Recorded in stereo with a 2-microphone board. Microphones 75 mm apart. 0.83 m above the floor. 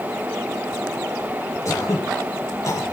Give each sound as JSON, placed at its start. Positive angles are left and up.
{"t": 1.6, "sound": "throat clearing", "side_deg": 40, "distance_m": 4.0}